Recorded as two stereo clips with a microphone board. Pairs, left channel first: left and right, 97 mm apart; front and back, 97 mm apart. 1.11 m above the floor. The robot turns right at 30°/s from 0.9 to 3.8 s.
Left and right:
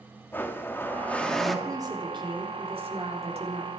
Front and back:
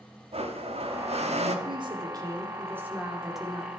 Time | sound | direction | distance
0.3 | a blender | 160° left | 1.7 m
1.6 | a woman speaking | 145° right | 4 m